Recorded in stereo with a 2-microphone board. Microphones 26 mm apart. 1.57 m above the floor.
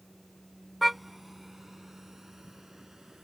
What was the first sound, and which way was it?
A car horn, 5° right (ahead or behind).